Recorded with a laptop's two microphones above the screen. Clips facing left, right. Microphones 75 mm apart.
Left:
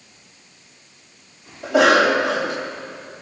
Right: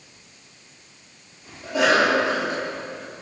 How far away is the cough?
About 2 m.